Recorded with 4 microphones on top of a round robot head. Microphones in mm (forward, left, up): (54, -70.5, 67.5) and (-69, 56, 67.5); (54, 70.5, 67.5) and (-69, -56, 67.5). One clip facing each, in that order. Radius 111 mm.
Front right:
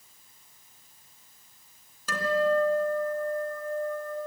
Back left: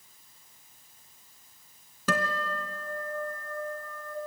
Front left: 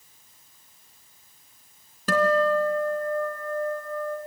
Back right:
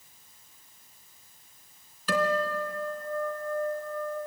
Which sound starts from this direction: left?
A guitar, at 2.1 s.